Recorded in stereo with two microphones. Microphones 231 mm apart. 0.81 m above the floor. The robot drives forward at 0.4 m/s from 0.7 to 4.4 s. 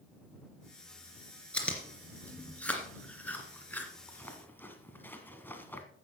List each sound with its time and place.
1.5 s chewing: 5° left (ahead or behind), 2.5 m; by 5.8 s 10° left (ahead or behind), 1.3 m